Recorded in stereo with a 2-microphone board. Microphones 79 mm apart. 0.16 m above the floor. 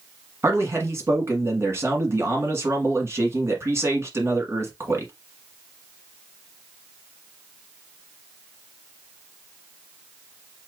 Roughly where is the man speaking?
Right.